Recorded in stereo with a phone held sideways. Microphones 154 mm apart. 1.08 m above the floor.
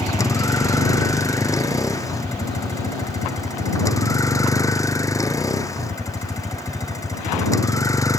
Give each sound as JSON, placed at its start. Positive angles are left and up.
{"t": 0.0, "sound": "a vehicle", "side_deg": 20}